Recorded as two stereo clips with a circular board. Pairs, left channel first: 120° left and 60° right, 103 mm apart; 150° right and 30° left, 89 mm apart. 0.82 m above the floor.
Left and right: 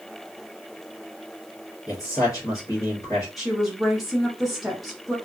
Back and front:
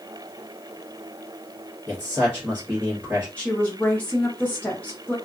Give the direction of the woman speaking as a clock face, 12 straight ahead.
5 o'clock.